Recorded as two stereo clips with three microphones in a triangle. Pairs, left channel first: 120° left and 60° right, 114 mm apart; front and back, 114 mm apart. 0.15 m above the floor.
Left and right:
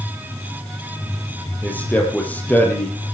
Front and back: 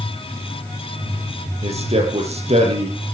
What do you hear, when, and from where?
1.6 s a man speaking: 165° right, 5.5 m